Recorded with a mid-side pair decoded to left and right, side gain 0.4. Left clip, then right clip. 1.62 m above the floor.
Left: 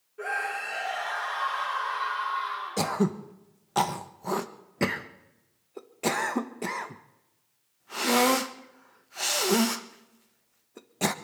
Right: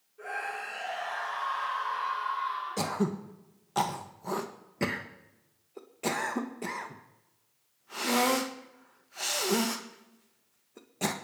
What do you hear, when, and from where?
0.2 s a scream: 65° left, 5.5 m
2.8 s throat clearing: 35° left, 1.5 m